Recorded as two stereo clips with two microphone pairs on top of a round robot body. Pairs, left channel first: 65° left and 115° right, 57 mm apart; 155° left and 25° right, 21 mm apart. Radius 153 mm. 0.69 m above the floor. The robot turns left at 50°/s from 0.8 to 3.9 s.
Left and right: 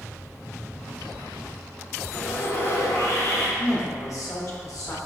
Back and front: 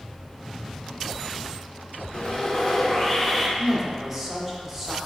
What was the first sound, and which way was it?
Sawing, 135° left.